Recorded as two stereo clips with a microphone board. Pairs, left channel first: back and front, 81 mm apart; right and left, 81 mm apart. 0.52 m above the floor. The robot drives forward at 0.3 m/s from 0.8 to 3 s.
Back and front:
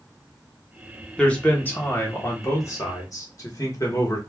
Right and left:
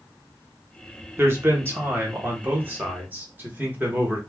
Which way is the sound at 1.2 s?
115° left.